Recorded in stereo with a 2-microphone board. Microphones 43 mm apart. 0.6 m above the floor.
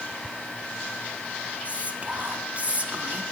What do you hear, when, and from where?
1.6 s whispering: 35° right (ahead or behind), 1.1 m